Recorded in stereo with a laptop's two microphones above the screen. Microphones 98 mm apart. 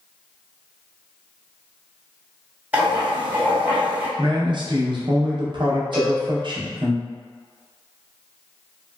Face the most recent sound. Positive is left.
turn(degrees=55)  # may be behind; listen again after turning